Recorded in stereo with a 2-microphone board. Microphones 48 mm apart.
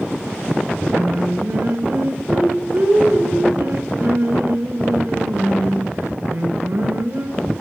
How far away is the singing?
About 2 m.